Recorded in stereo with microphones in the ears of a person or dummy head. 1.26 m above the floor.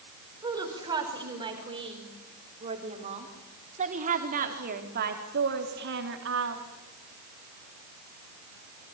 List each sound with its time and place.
0.4 s a woman speaking: 15° right (ahead or behind), 6 m; by 6.6 s 65° right (ahead or behind), 3 m